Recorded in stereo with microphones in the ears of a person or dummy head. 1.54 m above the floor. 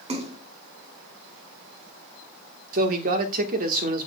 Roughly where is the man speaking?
Right.